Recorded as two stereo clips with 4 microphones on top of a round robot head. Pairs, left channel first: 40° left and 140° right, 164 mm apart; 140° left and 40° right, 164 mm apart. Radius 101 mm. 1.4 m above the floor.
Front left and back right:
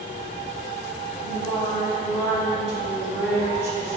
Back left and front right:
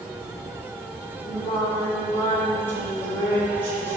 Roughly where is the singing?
Behind right.